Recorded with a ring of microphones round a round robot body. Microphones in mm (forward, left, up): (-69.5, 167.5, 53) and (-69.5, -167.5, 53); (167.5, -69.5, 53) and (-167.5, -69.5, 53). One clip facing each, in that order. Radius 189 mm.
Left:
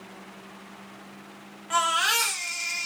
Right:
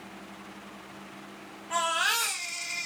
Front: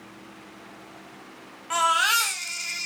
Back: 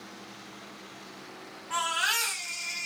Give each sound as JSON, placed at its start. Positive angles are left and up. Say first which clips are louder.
{"t": 1.7, "sound": "a baby crying", "louder": "left 3 dB, front 8 dB", "azimuth_deg": 30, "distance_m": 1.4}